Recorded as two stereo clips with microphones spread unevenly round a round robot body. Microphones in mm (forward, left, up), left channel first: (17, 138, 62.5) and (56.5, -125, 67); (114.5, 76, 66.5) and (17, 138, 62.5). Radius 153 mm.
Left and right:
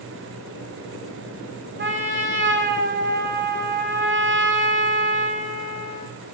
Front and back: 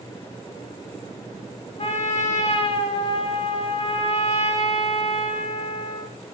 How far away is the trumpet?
About 2 m.